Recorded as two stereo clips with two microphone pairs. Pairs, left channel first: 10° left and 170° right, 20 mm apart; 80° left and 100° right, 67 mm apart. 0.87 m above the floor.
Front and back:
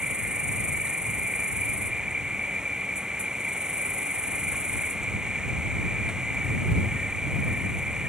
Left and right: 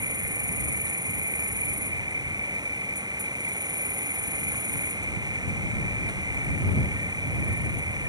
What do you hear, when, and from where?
0.0 s an insect: 115° right